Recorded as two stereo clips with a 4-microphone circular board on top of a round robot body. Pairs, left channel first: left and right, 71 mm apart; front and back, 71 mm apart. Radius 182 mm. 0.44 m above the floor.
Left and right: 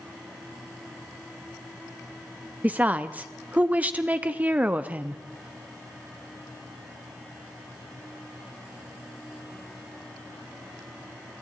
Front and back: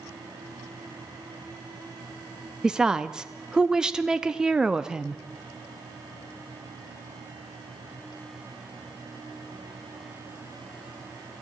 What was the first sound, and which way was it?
A woman speaking, 115° right.